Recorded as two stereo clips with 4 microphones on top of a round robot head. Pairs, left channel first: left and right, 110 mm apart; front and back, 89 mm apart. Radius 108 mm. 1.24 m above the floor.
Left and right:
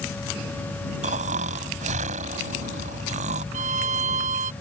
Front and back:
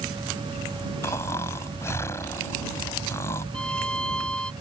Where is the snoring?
70° right.